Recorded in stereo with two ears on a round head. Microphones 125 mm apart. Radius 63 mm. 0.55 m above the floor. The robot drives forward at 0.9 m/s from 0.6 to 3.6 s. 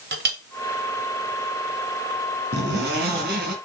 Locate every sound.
0.1 s a clink: 75° right (ahead or behind), 1.5 m
2.5 s a zipper: 80° right, 2.5 m